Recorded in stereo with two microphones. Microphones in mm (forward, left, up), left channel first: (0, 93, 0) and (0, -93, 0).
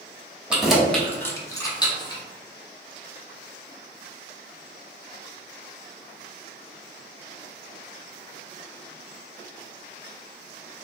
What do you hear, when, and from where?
0.5 s keys jangling: 5° right (ahead or behind), 0.7 m; by 2.2 s 25° left (ahead or behind), 0.9 m